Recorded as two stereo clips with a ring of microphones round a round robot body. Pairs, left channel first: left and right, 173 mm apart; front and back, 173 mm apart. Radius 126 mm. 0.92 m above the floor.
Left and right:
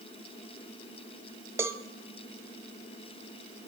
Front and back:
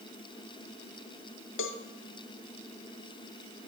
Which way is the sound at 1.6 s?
15° right.